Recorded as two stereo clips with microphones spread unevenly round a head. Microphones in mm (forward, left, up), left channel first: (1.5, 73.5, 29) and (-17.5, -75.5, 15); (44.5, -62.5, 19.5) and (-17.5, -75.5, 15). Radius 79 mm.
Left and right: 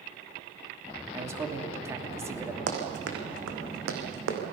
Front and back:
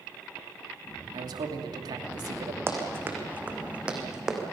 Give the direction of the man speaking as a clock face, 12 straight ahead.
6 o'clock.